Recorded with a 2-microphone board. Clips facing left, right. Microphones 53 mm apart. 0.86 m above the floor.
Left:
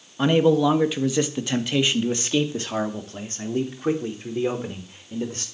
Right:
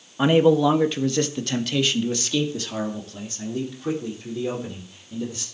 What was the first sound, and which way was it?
A man speaking, 10° right (ahead or behind).